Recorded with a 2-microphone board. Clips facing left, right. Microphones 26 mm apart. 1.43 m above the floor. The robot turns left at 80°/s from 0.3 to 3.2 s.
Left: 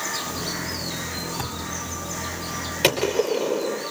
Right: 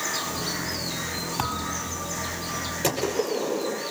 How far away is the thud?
About 3 m.